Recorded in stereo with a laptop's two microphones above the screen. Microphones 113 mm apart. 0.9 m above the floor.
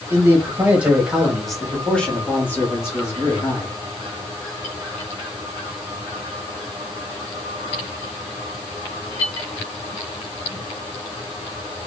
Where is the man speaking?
25° right (ahead or behind), 1.9 m; by 3.8 s 35° left (ahead or behind), 2 m.